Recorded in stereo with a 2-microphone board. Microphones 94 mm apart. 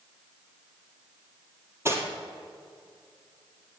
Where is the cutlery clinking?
25° right (ahead or behind), 1.9 m.